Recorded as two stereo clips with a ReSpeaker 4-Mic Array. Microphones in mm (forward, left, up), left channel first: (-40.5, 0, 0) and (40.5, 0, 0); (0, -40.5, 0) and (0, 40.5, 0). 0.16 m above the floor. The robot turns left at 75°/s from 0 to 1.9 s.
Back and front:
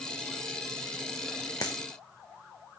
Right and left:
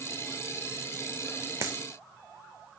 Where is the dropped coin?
145° left, 1.7 m; by 1.8 s 125° left, 1.7 m.